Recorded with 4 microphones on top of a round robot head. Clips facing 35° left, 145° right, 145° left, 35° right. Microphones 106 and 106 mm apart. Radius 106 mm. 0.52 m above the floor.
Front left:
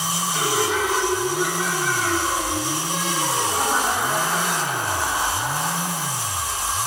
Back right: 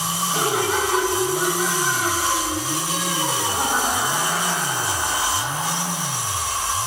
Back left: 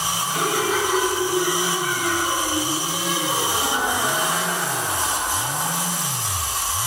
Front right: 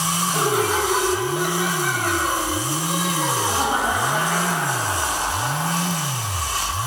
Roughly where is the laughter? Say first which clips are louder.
Back right 1 dB, front right 2 dB; right.